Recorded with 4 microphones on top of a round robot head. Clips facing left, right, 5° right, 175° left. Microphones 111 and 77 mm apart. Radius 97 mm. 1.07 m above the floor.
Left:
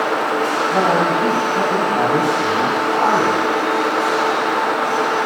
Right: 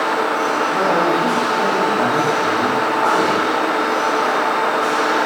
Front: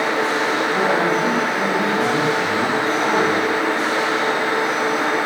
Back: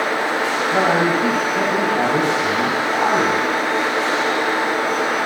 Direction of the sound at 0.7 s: 130° left.